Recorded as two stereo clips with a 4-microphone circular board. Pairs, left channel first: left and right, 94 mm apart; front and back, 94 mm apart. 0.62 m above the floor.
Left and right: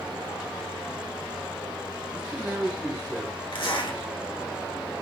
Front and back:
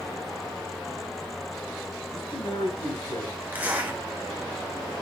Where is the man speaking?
15° right, 4 m.